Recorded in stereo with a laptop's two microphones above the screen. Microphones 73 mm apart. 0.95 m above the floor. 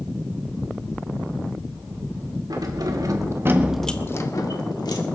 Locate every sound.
2.5 s keys jangling: 65° right (ahead or behind), 2 m; by 5.0 s 70° left (ahead or behind), 2.0 m